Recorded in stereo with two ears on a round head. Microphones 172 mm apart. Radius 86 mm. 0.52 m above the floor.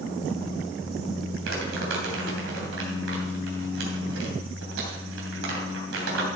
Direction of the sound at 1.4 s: 75° right (ahead or behind).